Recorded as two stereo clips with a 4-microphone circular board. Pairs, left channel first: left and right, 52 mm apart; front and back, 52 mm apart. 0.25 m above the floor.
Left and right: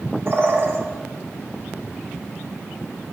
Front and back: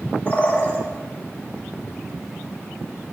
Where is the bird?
55° right, 1.0 m.